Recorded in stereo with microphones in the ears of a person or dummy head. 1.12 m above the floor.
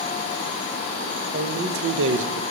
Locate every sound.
1.3 s a man speaking: 45° right (ahead or behind), 0.9 m; by 2.4 s 60° right (ahead or behind), 0.5 m